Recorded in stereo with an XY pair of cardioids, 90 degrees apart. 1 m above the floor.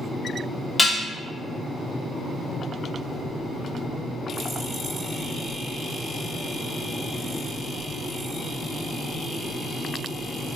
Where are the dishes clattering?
10° left, 1.1 m.